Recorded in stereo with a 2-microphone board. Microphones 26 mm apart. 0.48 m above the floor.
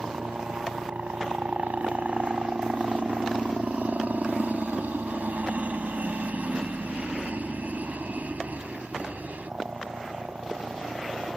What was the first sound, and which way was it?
A helicopter, 65° right (ahead or behind).